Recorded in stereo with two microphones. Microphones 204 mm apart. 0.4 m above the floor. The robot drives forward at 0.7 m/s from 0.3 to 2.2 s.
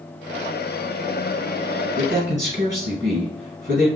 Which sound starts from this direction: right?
A man speaking, at 2.0 s.